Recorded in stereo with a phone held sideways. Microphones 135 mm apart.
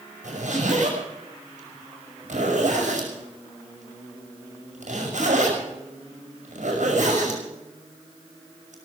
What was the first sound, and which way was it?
A zipper, 75° right (ahead or behind).